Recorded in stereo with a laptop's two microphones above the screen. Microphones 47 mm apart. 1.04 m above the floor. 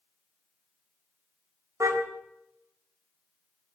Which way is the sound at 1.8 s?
80° right.